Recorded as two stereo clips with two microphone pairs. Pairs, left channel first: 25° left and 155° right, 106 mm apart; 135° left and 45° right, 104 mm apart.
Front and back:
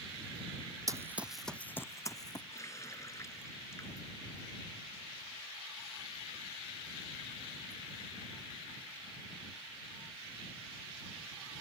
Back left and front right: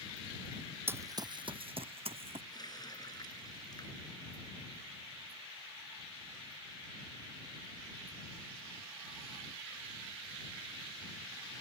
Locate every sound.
0.9 s running footsteps: 110° right; by 2.4 s 25° right
2.5 s a running tap: 85° left